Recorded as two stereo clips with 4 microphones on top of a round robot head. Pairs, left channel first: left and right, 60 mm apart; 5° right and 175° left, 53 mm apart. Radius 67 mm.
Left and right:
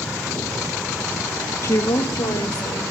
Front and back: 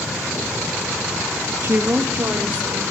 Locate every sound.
1.6 s a woman speaking: 135° left, 0.6 m; by 2.8 s 110° left, 1.7 m